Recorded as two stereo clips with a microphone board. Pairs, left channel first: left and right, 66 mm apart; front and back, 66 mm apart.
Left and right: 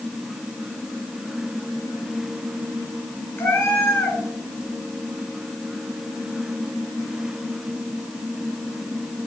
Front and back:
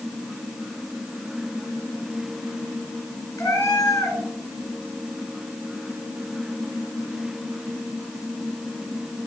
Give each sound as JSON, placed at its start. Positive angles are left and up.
{"t": 3.4, "sound": "a cat meowing", "azimuth_deg": 35, "distance_m": 1.7}